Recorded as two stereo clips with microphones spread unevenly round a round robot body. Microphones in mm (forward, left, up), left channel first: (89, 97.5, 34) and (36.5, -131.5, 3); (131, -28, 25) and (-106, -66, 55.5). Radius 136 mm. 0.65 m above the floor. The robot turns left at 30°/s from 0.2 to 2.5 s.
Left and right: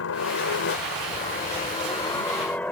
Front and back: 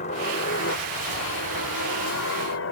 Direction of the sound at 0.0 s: 65° left.